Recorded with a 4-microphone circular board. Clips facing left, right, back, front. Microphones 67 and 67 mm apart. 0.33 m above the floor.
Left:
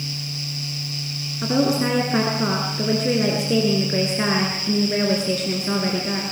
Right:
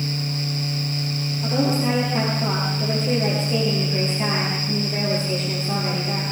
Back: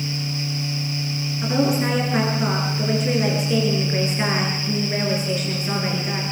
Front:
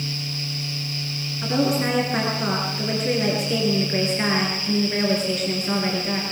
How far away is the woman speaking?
About 5.5 m.